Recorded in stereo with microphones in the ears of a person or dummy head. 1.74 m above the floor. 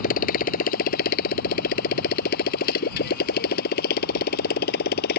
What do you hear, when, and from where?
0.0 s a motorcycle: 50° left (ahead or behind); by 5.2 s 55° left (ahead or behind)